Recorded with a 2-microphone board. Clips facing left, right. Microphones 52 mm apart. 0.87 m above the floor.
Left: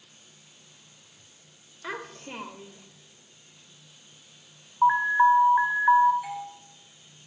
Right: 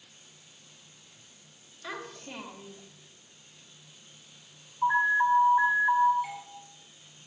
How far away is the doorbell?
About 8.5 m.